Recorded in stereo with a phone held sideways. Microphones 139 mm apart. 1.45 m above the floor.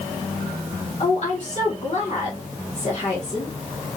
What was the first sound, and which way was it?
A woman speaking, 55° left (ahead or behind).